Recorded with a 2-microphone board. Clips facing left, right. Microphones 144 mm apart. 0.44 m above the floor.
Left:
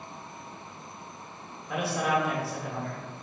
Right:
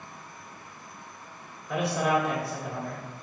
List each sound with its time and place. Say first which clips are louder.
1.7 s a man speaking: right 2 dB; centre (ahead or behind), 0.7 m